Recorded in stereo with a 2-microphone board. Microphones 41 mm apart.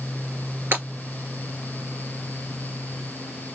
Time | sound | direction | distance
0.7 | breaking glass | 65° right (ahead or behind) | 3 m